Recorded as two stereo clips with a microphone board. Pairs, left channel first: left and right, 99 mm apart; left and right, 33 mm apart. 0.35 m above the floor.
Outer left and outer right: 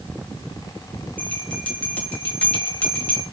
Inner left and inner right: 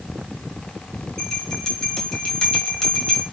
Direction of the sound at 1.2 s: 15° left (ahead or behind).